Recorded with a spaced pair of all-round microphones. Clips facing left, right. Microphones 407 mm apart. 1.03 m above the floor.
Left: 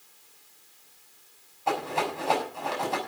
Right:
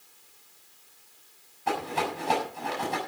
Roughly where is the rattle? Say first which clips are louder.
Left 1 dB; right.